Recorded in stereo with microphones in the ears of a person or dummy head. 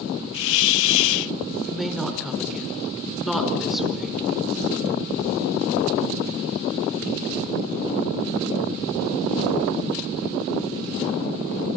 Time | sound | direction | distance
0.3 | a hiss | 70° left (ahead or behind) | 0.6 m
1.7 | a woman speaking | centre (ahead or behind) | 5 m